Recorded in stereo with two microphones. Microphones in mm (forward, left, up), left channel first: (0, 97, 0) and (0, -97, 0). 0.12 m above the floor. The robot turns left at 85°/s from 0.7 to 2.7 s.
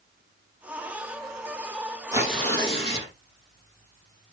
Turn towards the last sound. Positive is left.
turn(degrees=150)